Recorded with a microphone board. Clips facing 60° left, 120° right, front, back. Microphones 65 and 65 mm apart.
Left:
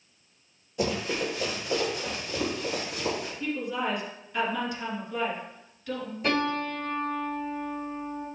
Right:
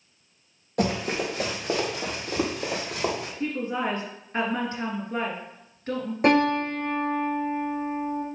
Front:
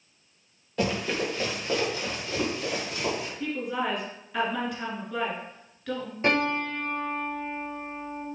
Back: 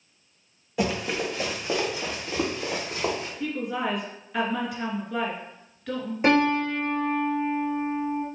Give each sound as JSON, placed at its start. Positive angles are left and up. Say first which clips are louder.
{"t": 0.8, "sound": "running footsteps", "louder": "right 3 dB, back 1 dB", "azimuth_deg": -95, "distance_m": 3.5}
{"t": 3.4, "sound": "a woman speaking", "louder": "right 3 dB, back 1 dB", "azimuth_deg": -95, "distance_m": 2.0}
{"t": 6.2, "sound": "a piano", "louder": "right 7 dB, back 5 dB", "azimuth_deg": -110, "distance_m": 2.0}